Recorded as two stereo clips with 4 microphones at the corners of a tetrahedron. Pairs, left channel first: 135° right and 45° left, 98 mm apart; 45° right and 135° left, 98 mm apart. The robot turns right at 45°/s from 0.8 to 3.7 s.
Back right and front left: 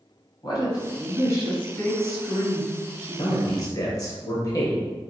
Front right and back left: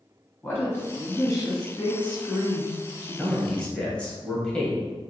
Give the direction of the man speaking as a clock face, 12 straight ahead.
5 o'clock.